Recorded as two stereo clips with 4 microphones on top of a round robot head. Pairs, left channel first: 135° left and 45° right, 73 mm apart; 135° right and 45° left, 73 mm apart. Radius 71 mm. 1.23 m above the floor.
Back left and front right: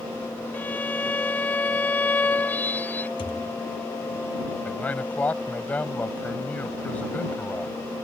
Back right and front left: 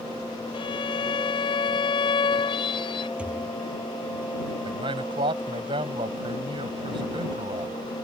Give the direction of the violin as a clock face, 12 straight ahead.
5 o'clock.